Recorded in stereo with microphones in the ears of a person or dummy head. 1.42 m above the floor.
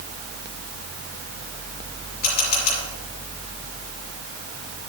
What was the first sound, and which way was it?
A camera shutter, 50° left (ahead or behind).